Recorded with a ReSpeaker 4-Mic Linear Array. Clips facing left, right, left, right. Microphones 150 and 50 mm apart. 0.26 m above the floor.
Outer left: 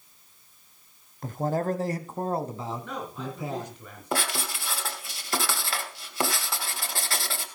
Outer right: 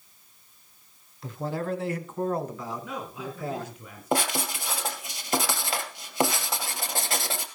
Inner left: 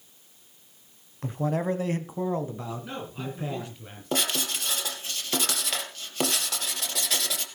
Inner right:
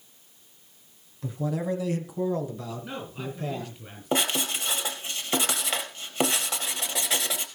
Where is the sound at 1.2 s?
50° left (ahead or behind), 1.4 m; by 3.7 s 15° left (ahead or behind), 2.5 m.